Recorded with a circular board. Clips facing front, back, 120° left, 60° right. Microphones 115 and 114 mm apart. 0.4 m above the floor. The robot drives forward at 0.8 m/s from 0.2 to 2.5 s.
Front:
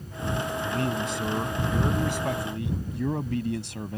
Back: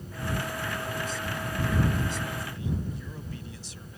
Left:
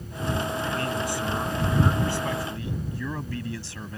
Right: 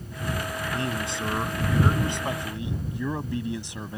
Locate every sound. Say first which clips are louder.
0.7 s a man speaking: front 5 dB, left 2 dB; 5° left; by 4.0 s 10° left